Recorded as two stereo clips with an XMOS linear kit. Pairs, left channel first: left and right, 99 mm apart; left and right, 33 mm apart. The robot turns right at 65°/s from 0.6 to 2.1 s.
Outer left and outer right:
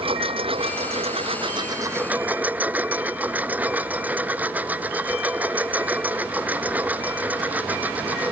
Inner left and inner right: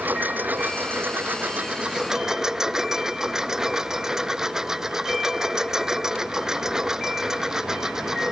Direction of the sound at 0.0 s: 115° right.